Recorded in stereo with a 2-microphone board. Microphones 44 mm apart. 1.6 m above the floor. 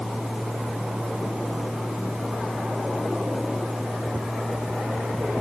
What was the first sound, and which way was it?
Only background noise.